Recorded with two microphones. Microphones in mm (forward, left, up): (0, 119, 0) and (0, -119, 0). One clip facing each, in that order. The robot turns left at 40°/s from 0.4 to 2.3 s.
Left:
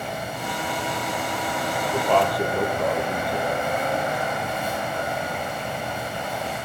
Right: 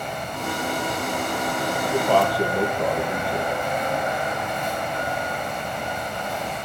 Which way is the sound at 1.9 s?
20° right (ahead or behind).